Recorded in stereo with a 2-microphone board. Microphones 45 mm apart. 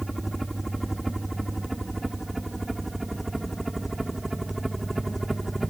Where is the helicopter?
Centre (ahead or behind).